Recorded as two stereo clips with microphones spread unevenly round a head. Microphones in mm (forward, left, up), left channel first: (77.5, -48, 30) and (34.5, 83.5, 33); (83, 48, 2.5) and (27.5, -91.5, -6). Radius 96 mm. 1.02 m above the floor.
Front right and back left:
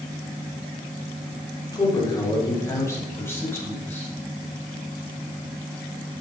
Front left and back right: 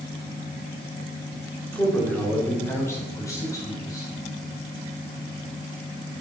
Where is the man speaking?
10° right, 3.5 m; by 4.1 s straight ahead, 6 m.